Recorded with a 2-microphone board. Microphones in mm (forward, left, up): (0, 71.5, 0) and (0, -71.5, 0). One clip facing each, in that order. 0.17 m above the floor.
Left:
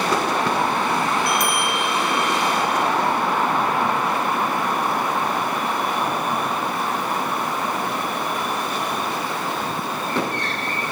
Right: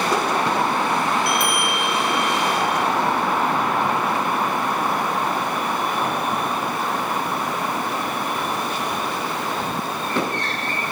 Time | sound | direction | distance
1.3 | a bell | 40° left (ahead or behind) | 3.5 m